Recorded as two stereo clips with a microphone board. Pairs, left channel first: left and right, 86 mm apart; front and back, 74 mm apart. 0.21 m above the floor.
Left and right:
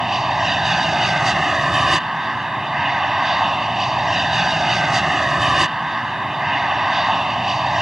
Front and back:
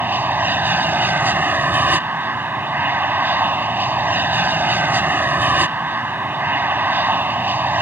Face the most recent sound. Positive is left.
turn(degrees=-170)